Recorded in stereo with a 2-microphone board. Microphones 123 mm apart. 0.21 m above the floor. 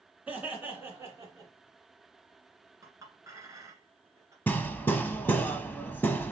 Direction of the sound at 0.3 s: 10° right (ahead or behind).